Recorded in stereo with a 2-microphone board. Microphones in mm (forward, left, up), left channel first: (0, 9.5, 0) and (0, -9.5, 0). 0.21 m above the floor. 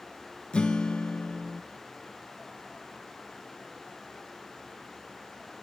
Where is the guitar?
60° left (ahead or behind), 0.5 m.